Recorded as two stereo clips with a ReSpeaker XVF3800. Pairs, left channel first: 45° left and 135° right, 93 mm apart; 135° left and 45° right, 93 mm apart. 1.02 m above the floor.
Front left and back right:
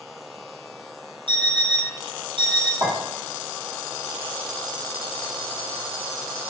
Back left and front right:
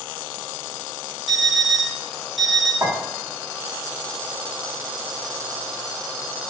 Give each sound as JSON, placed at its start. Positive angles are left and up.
{"t": 1.3, "sound": "an alarm clock", "azimuth_deg": -135, "distance_m": 0.7}
{"t": 2.8, "sound": "a clink", "azimuth_deg": -105, "distance_m": 1.3}